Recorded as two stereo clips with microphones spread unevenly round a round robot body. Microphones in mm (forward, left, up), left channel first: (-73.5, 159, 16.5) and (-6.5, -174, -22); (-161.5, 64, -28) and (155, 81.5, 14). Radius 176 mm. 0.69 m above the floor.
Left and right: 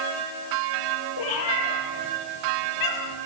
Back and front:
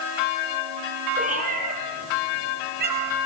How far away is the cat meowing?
About 8 m.